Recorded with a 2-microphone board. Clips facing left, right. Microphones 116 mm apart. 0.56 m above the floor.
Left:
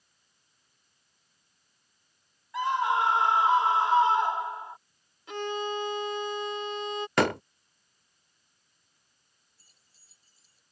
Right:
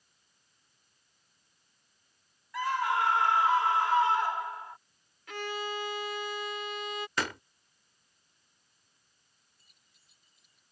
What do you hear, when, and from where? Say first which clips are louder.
2.5 s a scream: left 3 dB; 20° left (ahead or behind)
5.3 s a violin: left 5 dB; 25° left (ahead or behind)
7.2 s a door slam: left 12 dB; 65° left (ahead or behind)
9.6 s keys jangling: left 1 dB; 35° left (ahead or behind)